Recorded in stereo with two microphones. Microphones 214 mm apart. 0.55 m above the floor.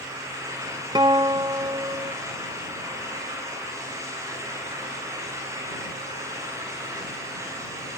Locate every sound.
0.9 s a guitar: 20° right (ahead or behind)